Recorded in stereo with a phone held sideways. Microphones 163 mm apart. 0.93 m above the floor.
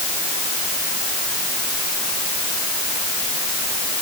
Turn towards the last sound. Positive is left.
No sound to turn to.